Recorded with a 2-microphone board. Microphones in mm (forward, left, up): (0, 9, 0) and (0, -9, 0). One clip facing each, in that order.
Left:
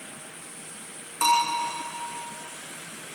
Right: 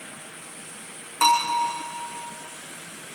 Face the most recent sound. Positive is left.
turn(degrees=-35)  # may be behind; listen again after turning